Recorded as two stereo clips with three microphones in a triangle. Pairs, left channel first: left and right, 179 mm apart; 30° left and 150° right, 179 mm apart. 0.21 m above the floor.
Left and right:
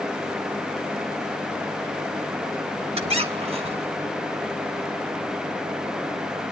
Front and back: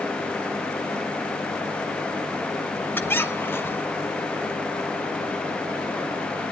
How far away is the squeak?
About 1.3 m.